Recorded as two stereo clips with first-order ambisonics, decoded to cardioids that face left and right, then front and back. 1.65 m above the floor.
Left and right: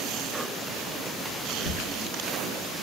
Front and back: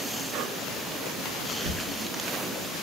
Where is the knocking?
120° left, 2.5 m.